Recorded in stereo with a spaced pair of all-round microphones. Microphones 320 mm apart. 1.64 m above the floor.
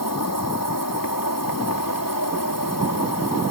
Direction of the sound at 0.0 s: 85° left.